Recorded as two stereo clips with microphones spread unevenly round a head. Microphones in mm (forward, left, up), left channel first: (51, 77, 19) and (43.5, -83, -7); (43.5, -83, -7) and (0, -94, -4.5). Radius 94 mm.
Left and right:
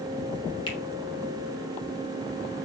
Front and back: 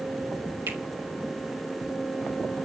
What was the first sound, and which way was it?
A finger snap, 155° left.